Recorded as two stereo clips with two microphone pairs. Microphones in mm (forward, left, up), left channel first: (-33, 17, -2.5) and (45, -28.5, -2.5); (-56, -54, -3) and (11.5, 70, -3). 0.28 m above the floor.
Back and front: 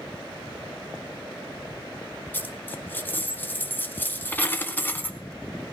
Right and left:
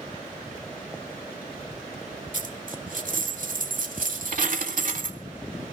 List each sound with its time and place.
2.3 s a dropped coin: 80° left, 0.8 m